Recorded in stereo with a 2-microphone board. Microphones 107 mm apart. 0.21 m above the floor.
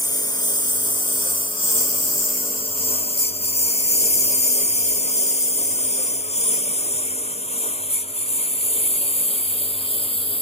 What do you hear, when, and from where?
0.0 s a lawn mower: 35° left (ahead or behind); by 10.4 s 60° left (ahead or behind)